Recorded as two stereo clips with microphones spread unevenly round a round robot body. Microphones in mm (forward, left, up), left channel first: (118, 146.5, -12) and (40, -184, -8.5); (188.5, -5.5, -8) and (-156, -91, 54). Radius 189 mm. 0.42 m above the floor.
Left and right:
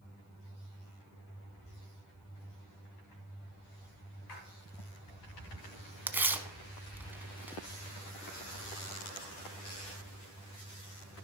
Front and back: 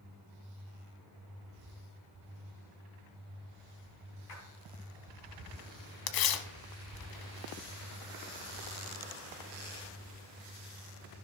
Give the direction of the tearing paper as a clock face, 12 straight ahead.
1 o'clock.